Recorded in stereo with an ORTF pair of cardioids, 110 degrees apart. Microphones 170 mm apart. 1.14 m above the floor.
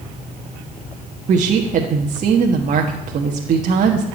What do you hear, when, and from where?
1.3 s a woman speaking: 45° right, 1.5 m